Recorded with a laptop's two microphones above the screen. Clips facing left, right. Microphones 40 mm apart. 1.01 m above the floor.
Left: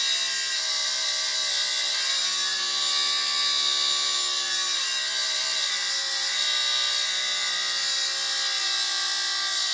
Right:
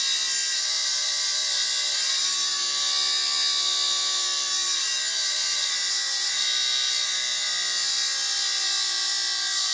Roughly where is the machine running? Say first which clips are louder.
Left 1 dB; centre.